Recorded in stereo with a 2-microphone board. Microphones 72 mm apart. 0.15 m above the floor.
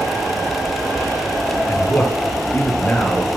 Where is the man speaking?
30° left (ahead or behind), 2.5 m; by 3.3 s 10° left (ahead or behind), 2.5 m.